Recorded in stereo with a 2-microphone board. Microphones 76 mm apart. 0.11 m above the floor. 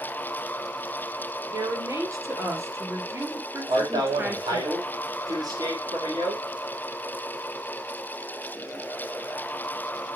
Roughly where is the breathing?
I don't hear breathing.